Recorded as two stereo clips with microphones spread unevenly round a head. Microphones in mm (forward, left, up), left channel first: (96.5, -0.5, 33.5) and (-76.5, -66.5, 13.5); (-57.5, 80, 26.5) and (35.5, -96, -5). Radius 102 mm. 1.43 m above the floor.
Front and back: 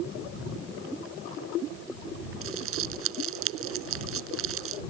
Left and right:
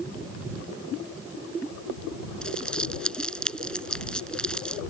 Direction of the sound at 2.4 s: 155° right.